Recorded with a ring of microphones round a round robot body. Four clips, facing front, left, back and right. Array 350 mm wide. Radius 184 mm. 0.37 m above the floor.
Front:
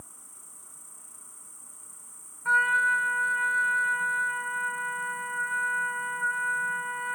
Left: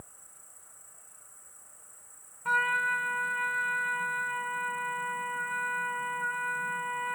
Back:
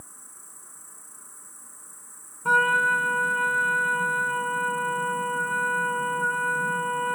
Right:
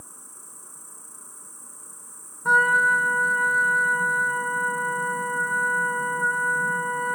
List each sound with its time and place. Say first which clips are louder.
0.0 s an insect: right 5 dB, back 2 dB; 100° right
2.5 s a trumpet: right 9 dB, back 3 dB; 140° right